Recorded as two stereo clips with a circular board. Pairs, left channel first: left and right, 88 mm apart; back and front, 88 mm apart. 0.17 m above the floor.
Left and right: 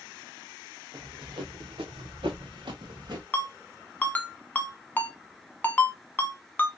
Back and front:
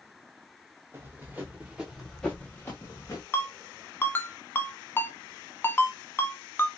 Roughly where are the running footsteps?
Ahead right.